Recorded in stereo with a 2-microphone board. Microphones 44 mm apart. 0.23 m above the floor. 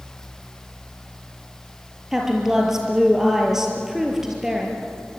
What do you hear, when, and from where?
2.1 s a woman speaking: 10° right (ahead or behind), 5.5 m